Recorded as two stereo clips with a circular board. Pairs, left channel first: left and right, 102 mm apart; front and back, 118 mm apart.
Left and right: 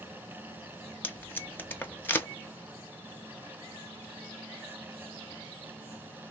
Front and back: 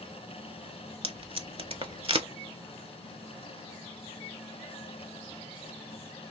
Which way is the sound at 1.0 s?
155° left.